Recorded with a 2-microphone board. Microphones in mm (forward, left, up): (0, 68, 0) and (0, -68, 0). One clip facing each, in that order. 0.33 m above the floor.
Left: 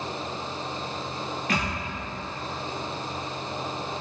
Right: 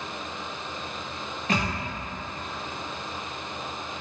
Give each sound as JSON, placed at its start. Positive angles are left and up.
{"t": 1.5, "sound": "a thud", "side_deg": -35, "distance_m": 1.8}